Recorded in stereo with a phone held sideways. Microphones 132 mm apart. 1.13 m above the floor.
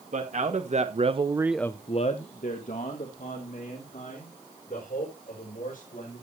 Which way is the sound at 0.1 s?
60° right (ahead or behind).